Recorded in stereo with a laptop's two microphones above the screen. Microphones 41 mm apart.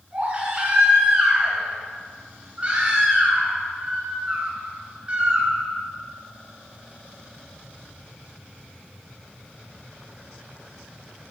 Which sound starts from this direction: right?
A baby crying, at 0.1 s.